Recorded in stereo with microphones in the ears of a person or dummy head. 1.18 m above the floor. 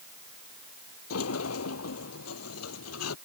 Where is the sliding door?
85° left.